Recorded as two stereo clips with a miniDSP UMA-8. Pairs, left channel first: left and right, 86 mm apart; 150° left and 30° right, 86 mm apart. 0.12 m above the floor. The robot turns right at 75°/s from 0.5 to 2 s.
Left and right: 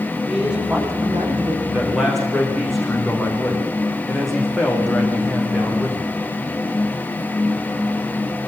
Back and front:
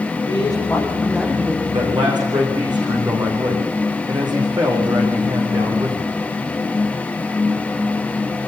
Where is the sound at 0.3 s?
170° right, 8 m; by 1.6 s 85° right, 8 m.